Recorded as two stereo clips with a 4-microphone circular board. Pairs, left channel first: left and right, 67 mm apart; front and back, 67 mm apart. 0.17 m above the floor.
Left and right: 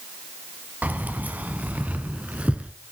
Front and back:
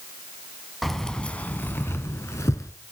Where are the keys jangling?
85° right, 0.9 m; by 2.7 s 20° right, 1.6 m.